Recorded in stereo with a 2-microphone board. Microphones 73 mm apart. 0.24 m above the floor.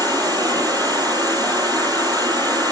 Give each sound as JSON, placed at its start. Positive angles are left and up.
{"t": 0.0, "sound": "an insect", "side_deg": -70, "distance_m": 9.5}